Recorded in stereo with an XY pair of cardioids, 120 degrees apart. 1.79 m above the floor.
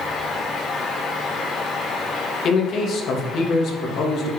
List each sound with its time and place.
0.0 s a fan: 45° left, 4.5 m
2.4 s a man speaking: 60° left, 3.5 m